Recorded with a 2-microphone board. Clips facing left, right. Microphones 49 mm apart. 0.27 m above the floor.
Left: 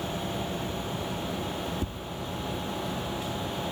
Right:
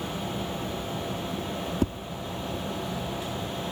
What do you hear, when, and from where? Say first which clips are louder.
1.8 s tapping: right 7 dB; 70° right (ahead or behind), 0.9 m